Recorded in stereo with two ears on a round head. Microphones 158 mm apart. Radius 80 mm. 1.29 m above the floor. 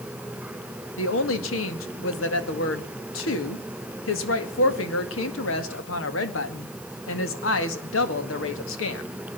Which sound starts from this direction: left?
A woman speaking, at 1.0 s.